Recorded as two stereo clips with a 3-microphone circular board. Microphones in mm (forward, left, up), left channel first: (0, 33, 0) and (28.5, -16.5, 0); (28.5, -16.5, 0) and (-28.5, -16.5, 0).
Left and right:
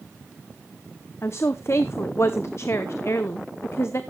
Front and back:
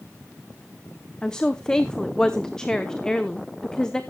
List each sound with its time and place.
1.2 s a woman speaking: 80° left, 0.7 m